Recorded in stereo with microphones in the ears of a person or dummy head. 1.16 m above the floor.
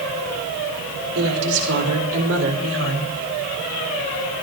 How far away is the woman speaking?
About 5 m.